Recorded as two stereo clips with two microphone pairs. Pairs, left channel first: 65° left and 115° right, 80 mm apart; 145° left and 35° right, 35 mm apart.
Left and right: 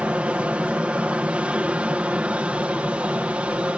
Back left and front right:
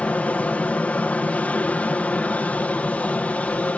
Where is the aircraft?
175° left.